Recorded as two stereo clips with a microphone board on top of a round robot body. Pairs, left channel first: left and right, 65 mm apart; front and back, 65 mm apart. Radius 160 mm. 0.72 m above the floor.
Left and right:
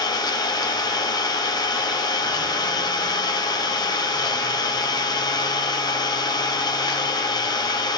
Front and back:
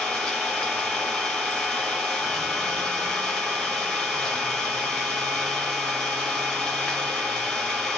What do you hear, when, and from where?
0.0 s an engine running: 80° left, 0.8 m